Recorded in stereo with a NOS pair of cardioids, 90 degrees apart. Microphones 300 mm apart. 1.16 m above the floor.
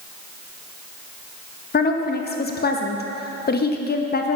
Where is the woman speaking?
30° left, 1.2 m.